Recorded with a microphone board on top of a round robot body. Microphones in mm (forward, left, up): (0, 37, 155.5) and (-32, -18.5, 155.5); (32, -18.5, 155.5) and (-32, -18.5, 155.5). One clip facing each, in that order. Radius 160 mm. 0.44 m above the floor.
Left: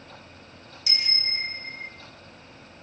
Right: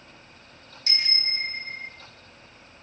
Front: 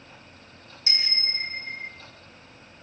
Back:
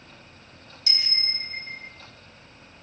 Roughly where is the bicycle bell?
Ahead right.